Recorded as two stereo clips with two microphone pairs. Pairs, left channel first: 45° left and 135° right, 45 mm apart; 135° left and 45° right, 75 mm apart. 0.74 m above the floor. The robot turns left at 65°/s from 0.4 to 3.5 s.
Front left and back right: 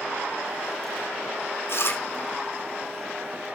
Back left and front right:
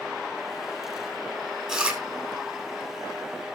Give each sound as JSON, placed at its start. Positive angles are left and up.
{"t": 1.7, "sound": "chewing", "azimuth_deg": 45, "distance_m": 3.5}